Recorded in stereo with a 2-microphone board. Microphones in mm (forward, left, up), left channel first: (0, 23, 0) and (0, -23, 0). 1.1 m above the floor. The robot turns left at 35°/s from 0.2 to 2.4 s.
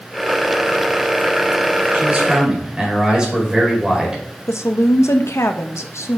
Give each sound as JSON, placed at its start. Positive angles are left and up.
{"t": 1.9, "sound": "a man speaking", "side_deg": -30, "distance_m": 4.5}
{"t": 4.5, "sound": "a woman speaking", "side_deg": 80, "distance_m": 1.0}